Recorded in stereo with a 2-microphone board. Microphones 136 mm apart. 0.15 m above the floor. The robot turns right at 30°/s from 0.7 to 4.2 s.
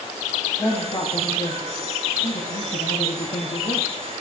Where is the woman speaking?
35° left, 7 m; by 3.9 s 130° left, 7 m.